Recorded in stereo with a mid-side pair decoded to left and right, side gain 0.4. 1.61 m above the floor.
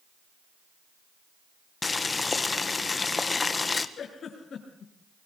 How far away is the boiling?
About 1.8 m.